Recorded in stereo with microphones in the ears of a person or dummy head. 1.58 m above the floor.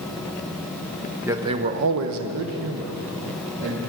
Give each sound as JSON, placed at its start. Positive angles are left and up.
{"t": 1.2, "sound": "a man speaking", "side_deg": -10, "distance_m": 0.8}